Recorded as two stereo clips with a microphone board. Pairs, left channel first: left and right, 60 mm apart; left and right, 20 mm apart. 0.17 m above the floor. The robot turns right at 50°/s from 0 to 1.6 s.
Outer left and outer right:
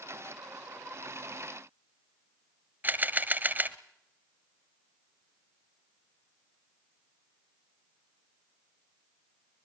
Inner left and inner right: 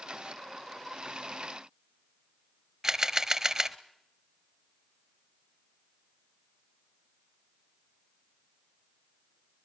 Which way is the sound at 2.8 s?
35° right (ahead or behind).